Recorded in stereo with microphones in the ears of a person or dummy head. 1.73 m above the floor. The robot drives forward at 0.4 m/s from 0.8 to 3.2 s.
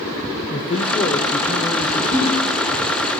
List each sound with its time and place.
0.5 s a man speaking: 30° left (ahead or behind), 0.9 m; by 2.0 s 20° left (ahead or behind), 1.3 m
2.1 s a ringtone: 55° left (ahead or behind), 4.5 m